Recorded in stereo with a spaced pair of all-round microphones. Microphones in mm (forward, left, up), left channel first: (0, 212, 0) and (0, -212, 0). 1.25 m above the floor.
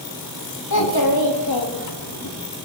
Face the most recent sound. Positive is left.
turn(degrees=60)  # may be behind; listen again after turning